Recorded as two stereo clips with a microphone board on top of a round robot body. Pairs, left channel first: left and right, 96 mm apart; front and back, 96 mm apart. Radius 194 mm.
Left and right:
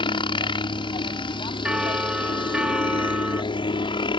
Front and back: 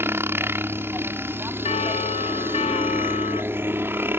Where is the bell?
10° right.